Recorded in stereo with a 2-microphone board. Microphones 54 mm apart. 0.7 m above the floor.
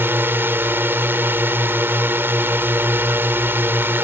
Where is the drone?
45° right (ahead or behind).